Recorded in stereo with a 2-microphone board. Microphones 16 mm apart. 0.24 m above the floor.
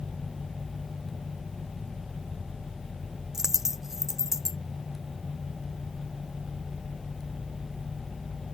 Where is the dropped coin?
25° right (ahead or behind).